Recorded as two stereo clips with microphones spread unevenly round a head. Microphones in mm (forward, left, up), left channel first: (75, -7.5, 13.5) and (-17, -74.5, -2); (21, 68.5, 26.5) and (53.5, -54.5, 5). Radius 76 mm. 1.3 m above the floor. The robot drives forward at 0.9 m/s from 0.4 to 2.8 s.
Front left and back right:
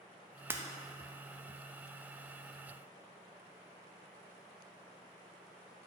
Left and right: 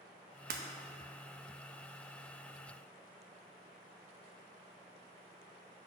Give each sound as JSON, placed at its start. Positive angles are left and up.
{"t": 0.5, "sound": "breaking glass", "azimuth_deg": -70, "distance_m": 0.8}